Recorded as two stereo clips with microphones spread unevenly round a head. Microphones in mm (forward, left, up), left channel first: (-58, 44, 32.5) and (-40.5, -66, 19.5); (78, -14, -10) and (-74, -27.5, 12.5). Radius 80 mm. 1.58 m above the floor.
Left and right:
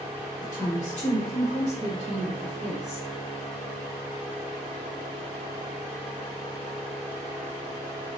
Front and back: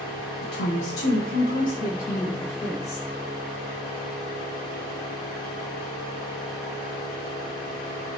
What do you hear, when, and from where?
0.4 s a woman speaking: 35° left, 0.6 m; by 3.1 s 45° right, 2 m